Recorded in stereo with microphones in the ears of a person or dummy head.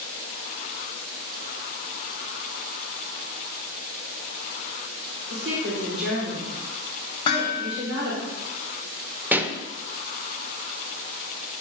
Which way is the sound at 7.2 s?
25° left (ahead or behind).